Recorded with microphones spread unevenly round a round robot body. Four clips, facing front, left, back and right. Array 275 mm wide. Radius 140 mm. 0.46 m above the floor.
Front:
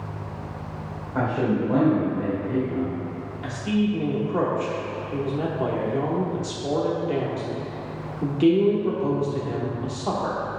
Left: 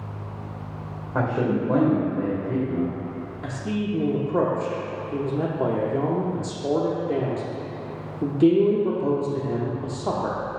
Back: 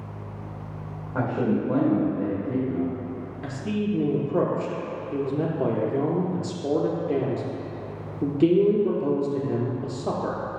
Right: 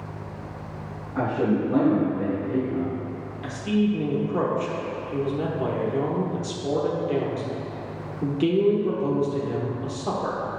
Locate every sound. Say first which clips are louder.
1.1 s a man speaking: even, front 1 dB; 85° left, 2.0 m
3.4 s a man speaking: right 5 dB, front 4 dB; 135° left, 0.8 m